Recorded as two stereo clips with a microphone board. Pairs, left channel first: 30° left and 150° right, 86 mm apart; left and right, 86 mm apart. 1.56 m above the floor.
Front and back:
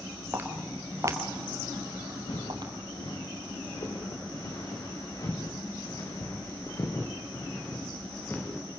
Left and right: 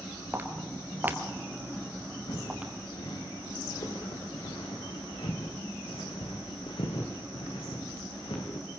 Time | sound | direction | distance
0.3 | footsteps | 120° right | 1.7 m
2.3 | footsteps | 60° left | 5.5 m